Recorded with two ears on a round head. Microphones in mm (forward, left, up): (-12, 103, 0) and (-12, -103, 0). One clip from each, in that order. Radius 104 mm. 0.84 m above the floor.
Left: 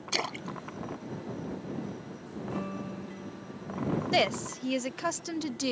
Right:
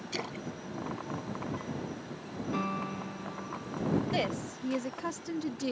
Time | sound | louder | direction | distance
0.1 | a splash | left 6 dB | 45° left (ahead or behind) | ?
2.5 | a piano | right 5 dB | 55° right (ahead or behind) | ?
4.1 | a woman speaking | left 6 dB | 40° left (ahead or behind) | ?